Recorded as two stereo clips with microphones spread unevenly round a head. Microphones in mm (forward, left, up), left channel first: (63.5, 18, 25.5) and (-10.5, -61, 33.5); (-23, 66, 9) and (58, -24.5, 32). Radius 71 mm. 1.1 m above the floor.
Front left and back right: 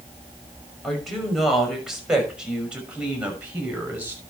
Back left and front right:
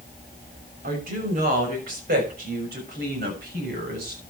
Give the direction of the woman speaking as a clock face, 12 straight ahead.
1 o'clock.